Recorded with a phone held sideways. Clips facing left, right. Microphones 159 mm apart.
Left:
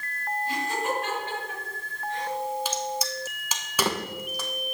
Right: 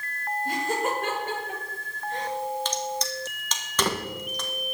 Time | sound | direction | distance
0.5 | laughter | 55° right (ahead or behind) | 6 m
2.6 | a crack | 10° left (ahead or behind) | 1.5 m